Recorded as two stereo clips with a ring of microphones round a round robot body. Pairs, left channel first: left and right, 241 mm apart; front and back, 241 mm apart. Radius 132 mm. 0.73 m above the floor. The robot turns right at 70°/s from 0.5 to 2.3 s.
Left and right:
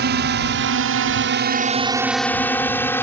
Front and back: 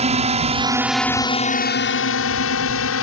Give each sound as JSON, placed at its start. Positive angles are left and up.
{"t": 0.0, "sound": "a drone", "azimuth_deg": -125}